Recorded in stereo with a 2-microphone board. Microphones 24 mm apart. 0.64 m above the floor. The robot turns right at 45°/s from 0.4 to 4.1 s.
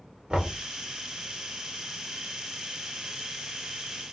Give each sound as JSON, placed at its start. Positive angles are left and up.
{"t": 0.3, "sound": "knocking", "side_deg": -45, "distance_m": 1.3}